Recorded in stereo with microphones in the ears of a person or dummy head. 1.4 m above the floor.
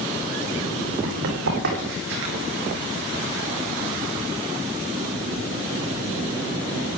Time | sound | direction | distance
1.0 | running footsteps | 70° right (ahead or behind) | 4.5 m